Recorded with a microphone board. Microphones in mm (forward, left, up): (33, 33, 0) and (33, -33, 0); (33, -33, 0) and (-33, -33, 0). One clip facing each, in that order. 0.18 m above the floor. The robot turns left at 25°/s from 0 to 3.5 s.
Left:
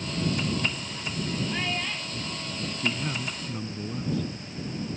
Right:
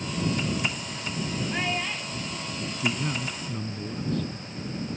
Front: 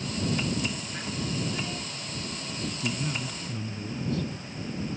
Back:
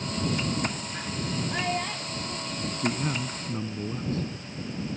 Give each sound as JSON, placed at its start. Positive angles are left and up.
{"t": 1.5, "sound": "a child speaking", "azimuth_deg": -160}
{"t": 2.8, "sound": "a man speaking", "azimuth_deg": -175}